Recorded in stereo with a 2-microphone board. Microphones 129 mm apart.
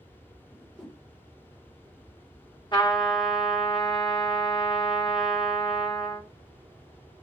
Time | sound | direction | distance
0.5 | a whoosh | centre (ahead or behind) | 0.8 m
2.7 | a trumpet | 35° left (ahead or behind) | 1.0 m